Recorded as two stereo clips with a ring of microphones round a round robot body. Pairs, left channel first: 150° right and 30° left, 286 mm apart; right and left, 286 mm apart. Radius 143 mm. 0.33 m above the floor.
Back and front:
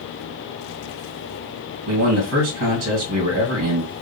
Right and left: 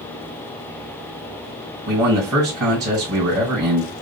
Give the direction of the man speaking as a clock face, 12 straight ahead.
11 o'clock.